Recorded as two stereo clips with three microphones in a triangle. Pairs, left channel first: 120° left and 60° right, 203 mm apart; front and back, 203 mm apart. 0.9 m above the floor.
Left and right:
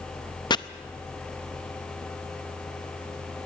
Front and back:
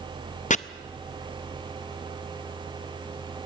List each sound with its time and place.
0.5 s chopping: 55° left, 0.5 m